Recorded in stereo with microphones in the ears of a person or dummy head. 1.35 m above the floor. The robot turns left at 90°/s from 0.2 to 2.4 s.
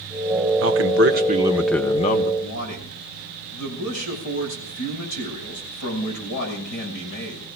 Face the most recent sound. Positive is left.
turn(degrees=70)  # may be behind; listen again after turning